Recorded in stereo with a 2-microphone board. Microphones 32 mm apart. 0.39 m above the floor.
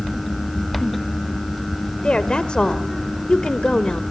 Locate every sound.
2.0 s a woman speaking: 30° left (ahead or behind), 1.2 m